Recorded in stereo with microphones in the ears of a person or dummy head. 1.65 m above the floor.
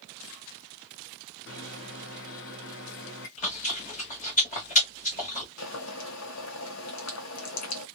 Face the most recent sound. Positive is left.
turn(degrees=80)